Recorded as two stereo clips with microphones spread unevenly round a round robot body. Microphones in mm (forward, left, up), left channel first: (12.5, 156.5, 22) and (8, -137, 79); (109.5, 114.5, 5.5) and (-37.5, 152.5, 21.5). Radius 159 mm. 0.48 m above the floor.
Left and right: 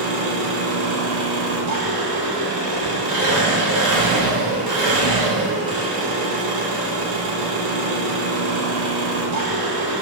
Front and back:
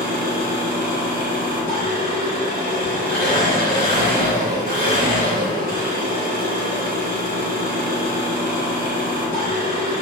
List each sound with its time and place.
0.0 s an engine running: 60° right, 0.9 m